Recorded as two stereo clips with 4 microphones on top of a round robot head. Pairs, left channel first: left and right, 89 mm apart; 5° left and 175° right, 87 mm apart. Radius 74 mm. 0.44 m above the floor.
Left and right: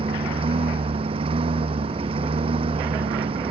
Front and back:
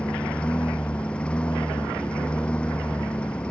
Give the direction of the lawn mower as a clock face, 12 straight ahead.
3 o'clock.